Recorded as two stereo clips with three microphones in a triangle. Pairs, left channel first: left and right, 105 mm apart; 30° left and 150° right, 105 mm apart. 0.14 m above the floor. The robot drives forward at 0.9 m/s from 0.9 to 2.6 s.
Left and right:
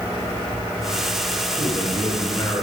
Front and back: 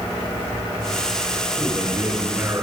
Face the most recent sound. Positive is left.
turn(degrees=135)